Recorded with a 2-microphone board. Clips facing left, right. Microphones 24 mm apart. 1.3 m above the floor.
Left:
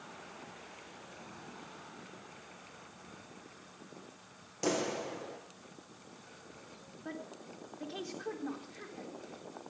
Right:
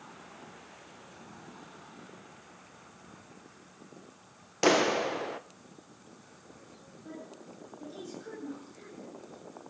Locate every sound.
4.6 s a clap: 50° right (ahead or behind), 0.6 m
7.0 s a woman speaking: 60° left (ahead or behind), 4 m